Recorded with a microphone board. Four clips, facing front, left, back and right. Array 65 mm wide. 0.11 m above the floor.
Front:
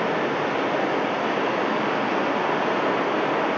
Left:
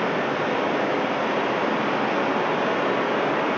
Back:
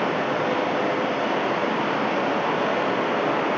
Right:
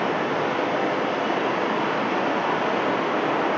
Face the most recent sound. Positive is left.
turn(degrees=85)